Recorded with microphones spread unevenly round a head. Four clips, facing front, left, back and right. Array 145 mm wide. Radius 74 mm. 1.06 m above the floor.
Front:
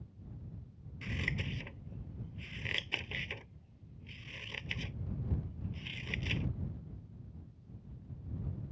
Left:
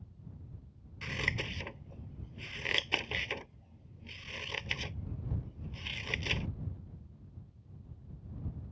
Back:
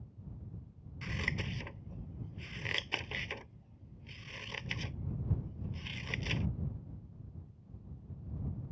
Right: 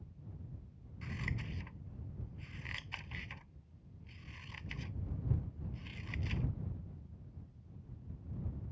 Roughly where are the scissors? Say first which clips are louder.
Left 6 dB, back 1 dB; left.